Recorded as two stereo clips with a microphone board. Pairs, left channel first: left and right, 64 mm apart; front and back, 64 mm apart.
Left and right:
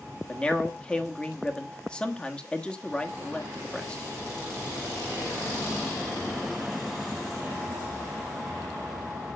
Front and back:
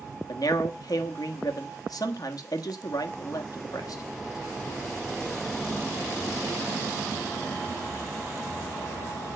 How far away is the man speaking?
About 1.3 m.